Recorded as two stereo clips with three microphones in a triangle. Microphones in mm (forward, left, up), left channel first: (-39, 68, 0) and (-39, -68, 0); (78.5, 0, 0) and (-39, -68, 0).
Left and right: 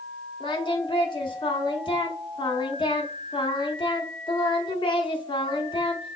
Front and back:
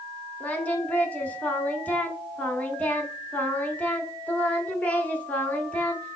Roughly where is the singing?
Left.